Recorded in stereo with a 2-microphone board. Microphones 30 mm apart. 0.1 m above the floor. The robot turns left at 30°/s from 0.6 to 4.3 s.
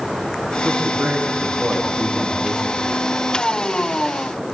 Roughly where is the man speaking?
Right.